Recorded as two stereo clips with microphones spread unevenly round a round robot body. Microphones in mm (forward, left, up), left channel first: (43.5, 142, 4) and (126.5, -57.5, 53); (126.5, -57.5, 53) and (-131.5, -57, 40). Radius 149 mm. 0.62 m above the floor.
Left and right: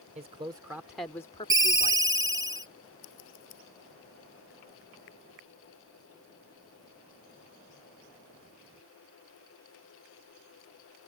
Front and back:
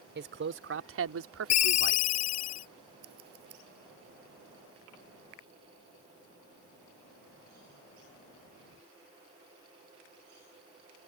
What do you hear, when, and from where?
0.1 s a man speaking: 140° right; by 2.0 s 145° left
1.5 s a ringtone: 10° left
3.0 s scissors: 120° left